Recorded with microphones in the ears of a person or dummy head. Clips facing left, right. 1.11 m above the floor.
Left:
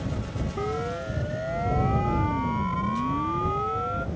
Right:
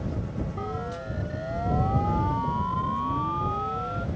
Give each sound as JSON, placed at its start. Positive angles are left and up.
{"t": 0.6, "sound": "a siren", "side_deg": 40}